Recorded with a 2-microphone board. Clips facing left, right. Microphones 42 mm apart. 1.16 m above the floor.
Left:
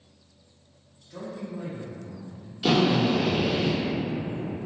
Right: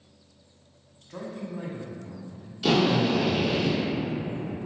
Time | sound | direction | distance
1.0 | a man speaking | 55° right (ahead or behind) | 1.1 m
2.6 | a drill | 10° left (ahead or behind) | 1.2 m